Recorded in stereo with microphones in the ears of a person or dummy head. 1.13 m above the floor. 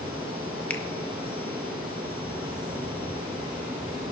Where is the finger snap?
5° left (ahead or behind), 1.0 m.